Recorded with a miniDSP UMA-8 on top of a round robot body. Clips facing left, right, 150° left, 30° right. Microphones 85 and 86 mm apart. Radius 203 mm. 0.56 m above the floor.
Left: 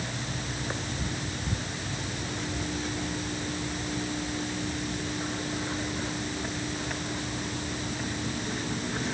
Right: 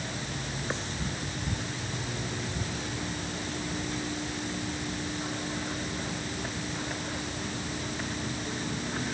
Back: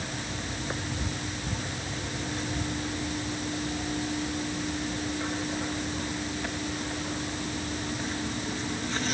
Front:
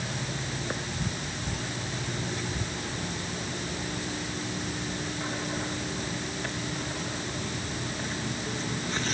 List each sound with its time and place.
Only background noise.